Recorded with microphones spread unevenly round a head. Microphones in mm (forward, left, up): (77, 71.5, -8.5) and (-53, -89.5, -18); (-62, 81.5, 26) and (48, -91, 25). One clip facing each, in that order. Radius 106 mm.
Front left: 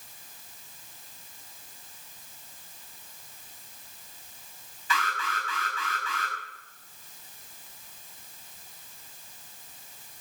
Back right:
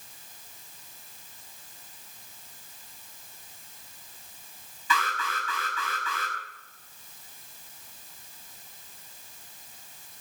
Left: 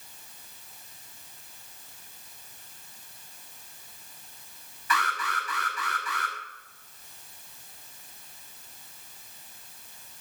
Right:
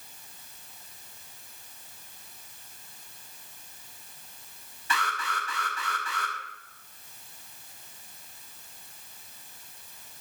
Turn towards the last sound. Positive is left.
turn(degrees=-120)